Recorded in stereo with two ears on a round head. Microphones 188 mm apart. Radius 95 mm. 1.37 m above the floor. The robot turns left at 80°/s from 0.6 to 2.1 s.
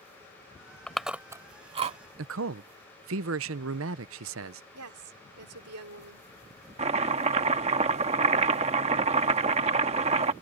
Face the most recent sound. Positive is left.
turn(degrees=-30)  # may be behind; listen again after turning